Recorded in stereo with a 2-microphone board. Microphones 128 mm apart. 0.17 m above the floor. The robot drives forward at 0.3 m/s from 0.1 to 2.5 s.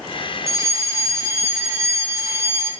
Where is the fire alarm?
25° right (ahead or behind), 2.5 m.